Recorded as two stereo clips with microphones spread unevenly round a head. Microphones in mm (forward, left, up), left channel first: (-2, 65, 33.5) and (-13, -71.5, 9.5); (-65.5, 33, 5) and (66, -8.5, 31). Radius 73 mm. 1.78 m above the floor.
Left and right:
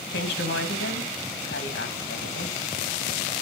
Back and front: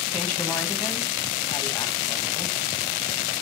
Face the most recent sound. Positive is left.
turn(degrees=80)